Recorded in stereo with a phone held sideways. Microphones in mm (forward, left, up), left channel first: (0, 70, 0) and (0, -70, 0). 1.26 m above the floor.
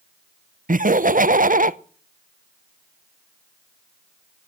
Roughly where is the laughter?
Right.